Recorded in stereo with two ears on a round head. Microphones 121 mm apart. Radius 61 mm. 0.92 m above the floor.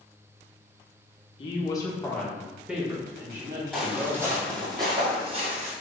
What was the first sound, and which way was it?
A woman speaking, 40° left (ahead or behind).